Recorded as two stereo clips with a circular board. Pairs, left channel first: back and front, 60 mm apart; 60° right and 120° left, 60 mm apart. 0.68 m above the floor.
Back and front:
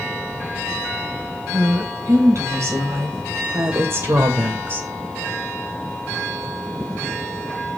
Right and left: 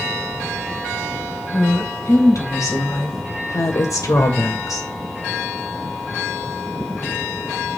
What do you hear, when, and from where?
1.5 s a woman speaking: 30° right, 4 m; by 4.9 s 50° right, 2 m